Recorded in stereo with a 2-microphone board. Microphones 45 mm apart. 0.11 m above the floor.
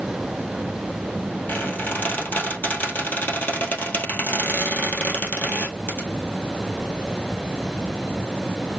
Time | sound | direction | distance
1.5 | a squeak | 40° left (ahead or behind) | 2.0 m